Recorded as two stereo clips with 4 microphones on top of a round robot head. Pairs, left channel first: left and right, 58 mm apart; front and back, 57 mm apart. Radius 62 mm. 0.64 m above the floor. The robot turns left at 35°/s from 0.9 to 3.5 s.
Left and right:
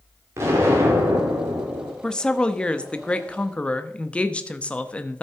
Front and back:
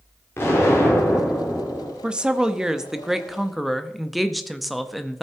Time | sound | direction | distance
0.4 | an explosion | 50° right | 2.5 m
2.0 | a woman speaking | 140° left | 0.7 m